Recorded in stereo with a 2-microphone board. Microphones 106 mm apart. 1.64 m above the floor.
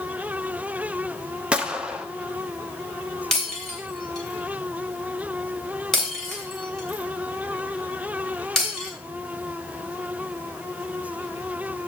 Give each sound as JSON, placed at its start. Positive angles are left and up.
{"t": 1.5, "sound": "a gunshot", "side_deg": -10, "distance_m": 0.8}
{"t": 3.3, "sound": "breaking glass", "side_deg": 5, "distance_m": 3.0}